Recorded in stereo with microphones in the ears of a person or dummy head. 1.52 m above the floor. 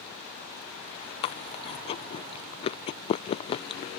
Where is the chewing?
30° left (ahead or behind).